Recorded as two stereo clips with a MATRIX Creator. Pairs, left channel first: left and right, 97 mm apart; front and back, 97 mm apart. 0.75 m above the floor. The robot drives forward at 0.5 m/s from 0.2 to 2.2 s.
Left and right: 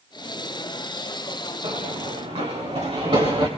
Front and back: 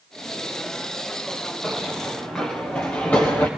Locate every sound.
1.6 s running footsteps: 85° right, 3.5 m; by 3.5 s 70° right, 4.5 m